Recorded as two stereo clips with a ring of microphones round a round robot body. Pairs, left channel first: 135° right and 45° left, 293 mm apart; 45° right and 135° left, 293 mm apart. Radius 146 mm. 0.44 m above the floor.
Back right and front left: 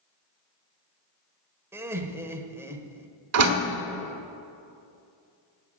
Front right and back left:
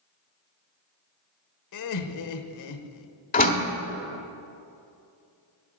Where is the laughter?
35° right, 1.4 m.